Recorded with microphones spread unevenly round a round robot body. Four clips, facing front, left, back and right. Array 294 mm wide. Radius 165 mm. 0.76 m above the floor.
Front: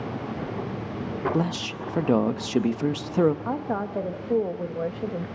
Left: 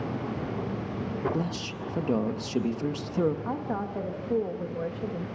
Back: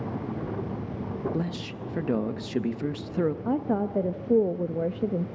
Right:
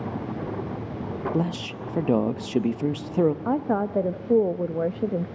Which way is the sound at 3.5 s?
130° right.